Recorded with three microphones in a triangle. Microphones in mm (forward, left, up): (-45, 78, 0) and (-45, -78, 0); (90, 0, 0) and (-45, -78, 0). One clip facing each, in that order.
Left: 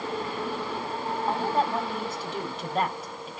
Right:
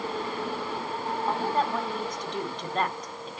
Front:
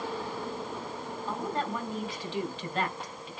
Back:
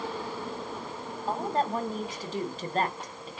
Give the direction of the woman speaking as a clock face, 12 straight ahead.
6 o'clock.